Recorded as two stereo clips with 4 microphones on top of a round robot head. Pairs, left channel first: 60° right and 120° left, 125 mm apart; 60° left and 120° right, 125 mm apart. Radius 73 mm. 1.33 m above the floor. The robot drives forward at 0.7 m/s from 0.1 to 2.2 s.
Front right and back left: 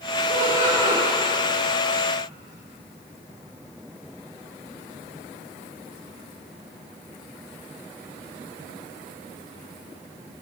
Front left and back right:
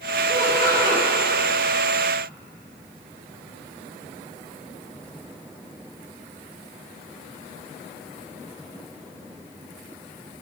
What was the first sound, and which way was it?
Laughter, 135° left.